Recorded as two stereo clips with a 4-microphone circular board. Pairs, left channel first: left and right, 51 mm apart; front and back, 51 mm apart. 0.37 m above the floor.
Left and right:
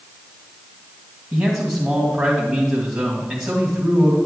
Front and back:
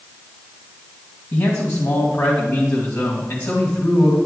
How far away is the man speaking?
About 2.5 m.